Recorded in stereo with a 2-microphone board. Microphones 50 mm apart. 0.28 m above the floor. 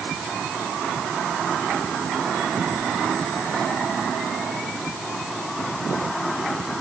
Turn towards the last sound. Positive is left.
No sound to turn to.